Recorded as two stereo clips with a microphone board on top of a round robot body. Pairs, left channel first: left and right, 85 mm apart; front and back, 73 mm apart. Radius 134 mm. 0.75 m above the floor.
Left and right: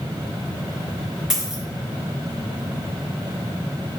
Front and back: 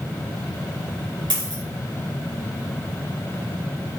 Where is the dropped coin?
175° right, 4 m.